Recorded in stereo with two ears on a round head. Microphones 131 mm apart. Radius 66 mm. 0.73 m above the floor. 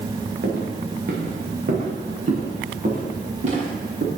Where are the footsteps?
75° right (ahead or behind), 4 m; by 4.1 s 45° right (ahead or behind), 5.5 m.